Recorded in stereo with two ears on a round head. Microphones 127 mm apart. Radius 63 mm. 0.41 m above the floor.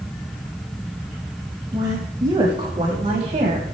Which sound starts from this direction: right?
A woman speaking, at 1.7 s.